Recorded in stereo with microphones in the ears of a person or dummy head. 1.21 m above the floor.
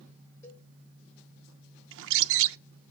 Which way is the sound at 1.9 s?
70° right (ahead or behind).